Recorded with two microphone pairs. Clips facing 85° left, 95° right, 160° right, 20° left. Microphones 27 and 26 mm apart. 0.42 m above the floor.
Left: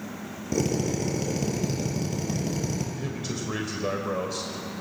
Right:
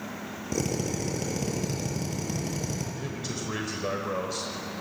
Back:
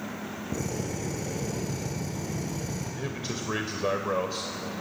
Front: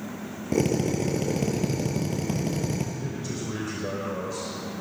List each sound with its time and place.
0.5 s a drill: 5° left, 5 m
2.9 s a man speaking: straight behind, 1.7 m